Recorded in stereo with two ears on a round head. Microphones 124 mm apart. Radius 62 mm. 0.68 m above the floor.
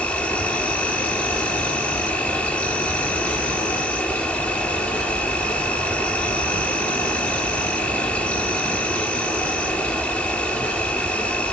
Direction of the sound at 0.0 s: 10° left (ahead or behind).